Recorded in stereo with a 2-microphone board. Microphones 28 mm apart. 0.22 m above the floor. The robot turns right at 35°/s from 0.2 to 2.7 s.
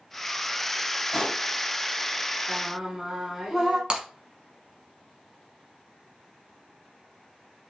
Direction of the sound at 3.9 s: 30° right (ahead or behind).